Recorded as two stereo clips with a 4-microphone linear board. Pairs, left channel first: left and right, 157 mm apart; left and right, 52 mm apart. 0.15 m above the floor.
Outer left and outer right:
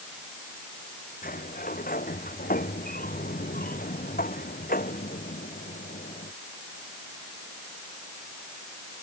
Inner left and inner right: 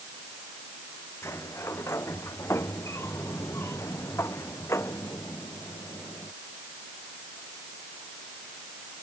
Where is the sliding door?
60° left (ahead or behind).